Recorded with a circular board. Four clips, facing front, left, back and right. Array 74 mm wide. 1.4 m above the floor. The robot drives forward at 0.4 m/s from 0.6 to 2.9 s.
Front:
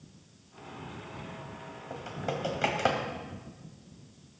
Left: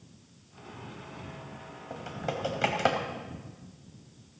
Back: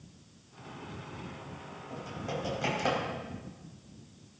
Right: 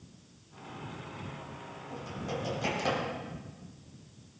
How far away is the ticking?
No ticking in this recording.